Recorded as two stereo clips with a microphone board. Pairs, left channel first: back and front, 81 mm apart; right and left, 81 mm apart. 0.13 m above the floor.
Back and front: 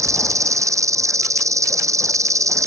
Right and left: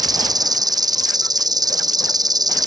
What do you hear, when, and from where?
0.0 s an insect: 50° left